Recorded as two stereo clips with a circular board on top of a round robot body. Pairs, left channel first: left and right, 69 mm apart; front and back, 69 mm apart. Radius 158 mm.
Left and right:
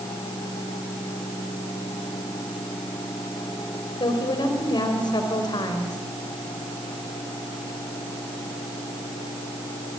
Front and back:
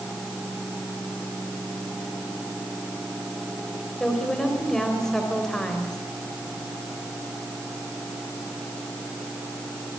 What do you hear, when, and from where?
4.0 s a woman speaking: 85° left, 4 m